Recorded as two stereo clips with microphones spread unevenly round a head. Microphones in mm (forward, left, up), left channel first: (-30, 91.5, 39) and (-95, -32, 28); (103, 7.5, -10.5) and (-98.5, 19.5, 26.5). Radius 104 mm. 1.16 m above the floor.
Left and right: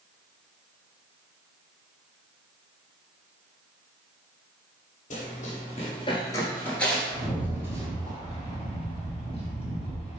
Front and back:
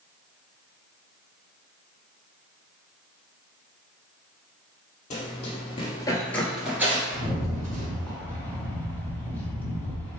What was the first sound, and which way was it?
Running footsteps, 50° left.